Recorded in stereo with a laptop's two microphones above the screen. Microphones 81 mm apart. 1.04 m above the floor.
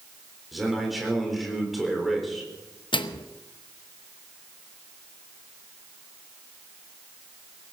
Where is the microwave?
80° left, 0.8 m.